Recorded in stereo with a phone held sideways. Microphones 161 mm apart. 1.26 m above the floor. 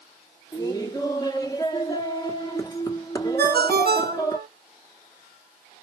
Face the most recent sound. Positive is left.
turn(degrees=-80)